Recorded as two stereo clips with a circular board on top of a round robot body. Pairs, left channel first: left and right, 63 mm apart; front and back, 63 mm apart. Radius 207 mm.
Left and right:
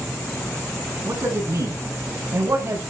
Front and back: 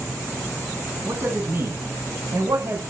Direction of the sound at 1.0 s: 135° right.